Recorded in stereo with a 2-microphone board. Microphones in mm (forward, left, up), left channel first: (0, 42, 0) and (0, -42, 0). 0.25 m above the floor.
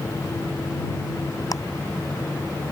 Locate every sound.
1.5 s ticking: 45° left (ahead or behind)